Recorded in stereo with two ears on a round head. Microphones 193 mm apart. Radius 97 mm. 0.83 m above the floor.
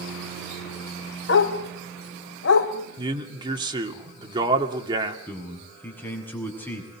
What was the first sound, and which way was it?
A dog barking, 60° left (ahead or behind).